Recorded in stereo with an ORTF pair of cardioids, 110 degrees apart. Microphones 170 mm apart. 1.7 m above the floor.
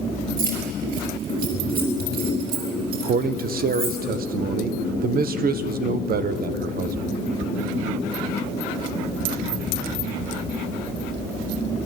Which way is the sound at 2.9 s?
60° right.